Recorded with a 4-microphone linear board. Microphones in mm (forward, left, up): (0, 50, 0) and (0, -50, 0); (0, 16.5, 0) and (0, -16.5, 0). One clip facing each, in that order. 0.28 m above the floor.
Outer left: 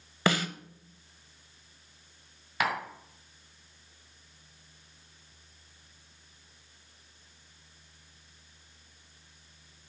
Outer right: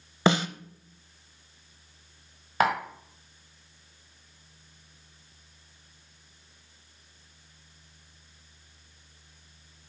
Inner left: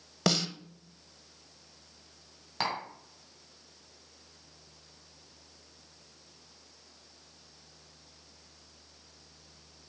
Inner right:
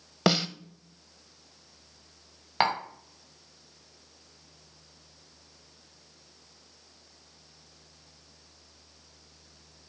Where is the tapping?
40° right (ahead or behind), 1.9 m.